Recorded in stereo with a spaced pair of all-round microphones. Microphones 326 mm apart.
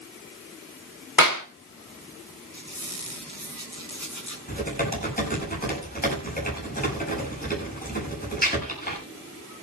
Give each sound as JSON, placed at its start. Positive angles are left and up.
{"t": 1.2, "sound": "a clap", "side_deg": 85, "distance_m": 3.5}
{"t": 2.5, "sound": "a squeak", "side_deg": 55, "distance_m": 7.0}
{"t": 4.5, "sound": "typing on a keyboard", "side_deg": 25, "distance_m": 9.0}